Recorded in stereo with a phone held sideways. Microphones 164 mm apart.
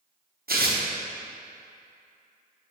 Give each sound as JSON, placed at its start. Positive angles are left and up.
{"t": 0.5, "sound": "tearing paper", "side_deg": -75, "distance_m": 0.9}